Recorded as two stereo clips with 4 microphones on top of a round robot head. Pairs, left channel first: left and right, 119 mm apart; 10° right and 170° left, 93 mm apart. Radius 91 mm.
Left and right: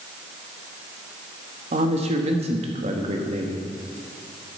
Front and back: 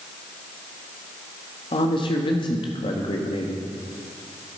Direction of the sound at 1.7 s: 50° right.